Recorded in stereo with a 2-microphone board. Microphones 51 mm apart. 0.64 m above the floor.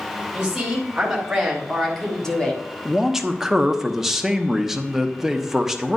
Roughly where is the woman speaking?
Centre.